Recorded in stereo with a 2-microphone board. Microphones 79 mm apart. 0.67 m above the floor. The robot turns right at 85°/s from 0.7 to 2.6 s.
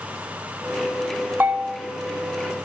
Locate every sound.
1.4 s a bell: 50° right, 0.8 m; by 1.8 s 15° right, 0.8 m